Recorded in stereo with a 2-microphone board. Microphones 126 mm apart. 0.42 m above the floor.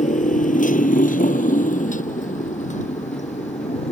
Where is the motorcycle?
70° left (ahead or behind); by 3.9 s 60° left (ahead or behind).